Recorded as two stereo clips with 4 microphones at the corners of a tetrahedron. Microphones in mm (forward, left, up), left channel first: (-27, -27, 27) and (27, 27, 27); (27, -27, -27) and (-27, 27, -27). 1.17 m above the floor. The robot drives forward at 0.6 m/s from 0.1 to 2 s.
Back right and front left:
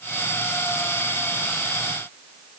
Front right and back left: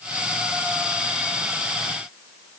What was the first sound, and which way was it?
Only background noise.